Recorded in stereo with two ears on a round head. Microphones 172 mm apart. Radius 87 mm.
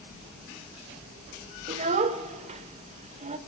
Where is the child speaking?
35° right (ahead or behind), 1.3 m.